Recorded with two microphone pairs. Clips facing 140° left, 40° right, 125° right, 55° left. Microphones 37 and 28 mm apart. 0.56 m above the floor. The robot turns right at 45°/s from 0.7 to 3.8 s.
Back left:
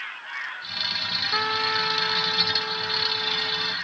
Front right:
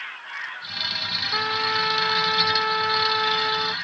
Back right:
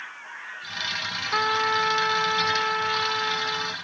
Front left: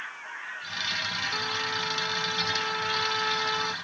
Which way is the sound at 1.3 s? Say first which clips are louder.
Front right 1 dB, back right 7 dB; 135° right.